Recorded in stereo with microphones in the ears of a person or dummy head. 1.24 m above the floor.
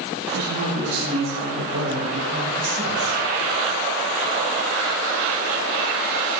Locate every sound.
0.3 s a man speaking: 60° right (ahead or behind), 8.5 m